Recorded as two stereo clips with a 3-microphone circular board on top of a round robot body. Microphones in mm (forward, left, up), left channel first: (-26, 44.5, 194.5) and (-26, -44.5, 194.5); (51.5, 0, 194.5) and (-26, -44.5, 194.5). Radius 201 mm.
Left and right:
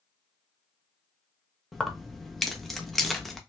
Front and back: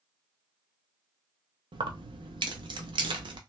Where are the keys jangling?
Straight behind, 0.6 m.